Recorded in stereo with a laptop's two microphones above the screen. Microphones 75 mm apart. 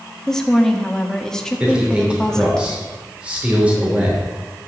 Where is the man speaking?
15° right (ahead or behind), 3.5 m.